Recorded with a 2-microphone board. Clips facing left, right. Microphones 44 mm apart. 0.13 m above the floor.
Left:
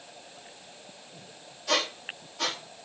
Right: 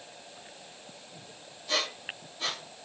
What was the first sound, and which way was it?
A squeak, 65° left (ahead or behind).